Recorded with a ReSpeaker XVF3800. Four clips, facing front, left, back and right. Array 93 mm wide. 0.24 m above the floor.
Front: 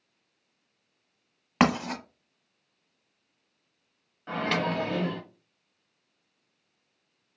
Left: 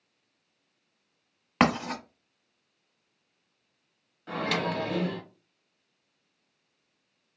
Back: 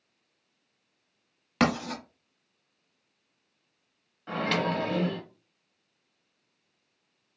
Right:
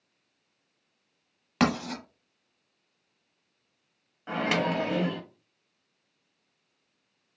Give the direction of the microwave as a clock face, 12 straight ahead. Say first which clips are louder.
Right 2 dB, even; 3 o'clock.